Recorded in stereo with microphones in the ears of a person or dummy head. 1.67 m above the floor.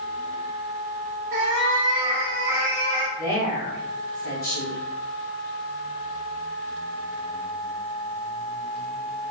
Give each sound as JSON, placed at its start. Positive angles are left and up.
{"t": 1.3, "sound": "a cat meowing", "side_deg": -25, "distance_m": 0.9}
{"t": 3.2, "sound": "a woman speaking", "side_deg": 50, "distance_m": 2.0}